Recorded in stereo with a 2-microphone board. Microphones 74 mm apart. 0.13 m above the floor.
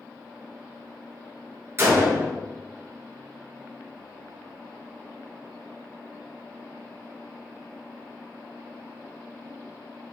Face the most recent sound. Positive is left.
turn(degrees=-35)  # may be behind; listen again after turning